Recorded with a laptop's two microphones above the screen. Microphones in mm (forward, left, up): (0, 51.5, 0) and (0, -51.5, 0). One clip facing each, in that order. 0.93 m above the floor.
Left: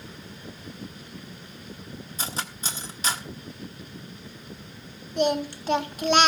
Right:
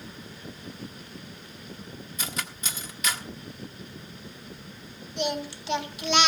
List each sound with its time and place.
2.2 s cutlery clinking: 30° left (ahead or behind), 1.3 m
5.2 s singing: 45° left (ahead or behind), 1.5 m